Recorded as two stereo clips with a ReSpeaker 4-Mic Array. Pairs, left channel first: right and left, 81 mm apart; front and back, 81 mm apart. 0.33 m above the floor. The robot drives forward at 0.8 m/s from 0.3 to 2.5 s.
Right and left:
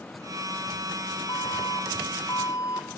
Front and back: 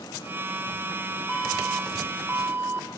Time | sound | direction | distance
1.3 | an alarm | 85° right | 1.4 m